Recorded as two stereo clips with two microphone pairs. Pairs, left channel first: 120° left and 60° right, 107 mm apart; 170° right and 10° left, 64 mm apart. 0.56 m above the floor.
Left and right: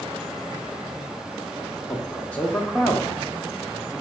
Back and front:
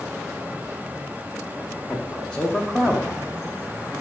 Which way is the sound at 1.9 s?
160° left.